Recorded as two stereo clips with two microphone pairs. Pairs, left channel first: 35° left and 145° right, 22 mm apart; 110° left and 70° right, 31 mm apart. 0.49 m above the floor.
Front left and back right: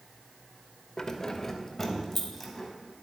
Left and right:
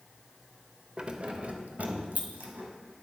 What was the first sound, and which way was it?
Keys jangling, 15° right.